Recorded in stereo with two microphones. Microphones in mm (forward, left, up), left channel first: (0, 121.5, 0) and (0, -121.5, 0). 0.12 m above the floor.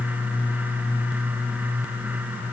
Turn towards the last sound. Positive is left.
No sound to turn to.